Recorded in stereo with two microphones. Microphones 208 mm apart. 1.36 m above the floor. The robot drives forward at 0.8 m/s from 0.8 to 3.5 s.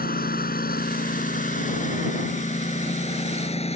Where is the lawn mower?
45° left (ahead or behind); by 3.8 s 30° left (ahead or behind).